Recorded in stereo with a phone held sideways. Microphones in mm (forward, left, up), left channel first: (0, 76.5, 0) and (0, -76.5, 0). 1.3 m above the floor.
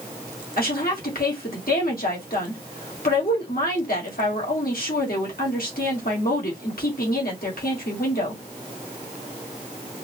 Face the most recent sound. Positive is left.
turn(degrees=75)  # may be behind; listen again after turning